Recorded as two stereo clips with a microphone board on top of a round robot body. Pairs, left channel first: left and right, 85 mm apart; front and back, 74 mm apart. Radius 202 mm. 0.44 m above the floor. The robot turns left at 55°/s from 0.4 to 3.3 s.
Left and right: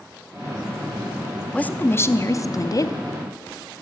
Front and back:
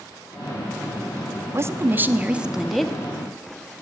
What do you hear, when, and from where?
1.5 s a woman speaking: 160° left, 0.8 m; by 3.0 s 80° left, 0.8 m